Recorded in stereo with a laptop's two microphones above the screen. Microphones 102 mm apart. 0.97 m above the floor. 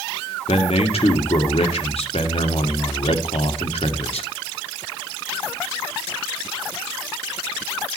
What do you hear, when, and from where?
0.5 s a man speaking: 75° left (ahead or behind), 2 m